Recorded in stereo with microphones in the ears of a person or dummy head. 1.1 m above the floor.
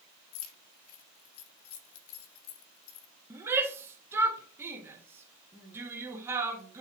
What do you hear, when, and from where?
0.3 s keys jangling: 85° left, 1.1 m
3.3 s a shout: 15° right (ahead or behind), 1.4 m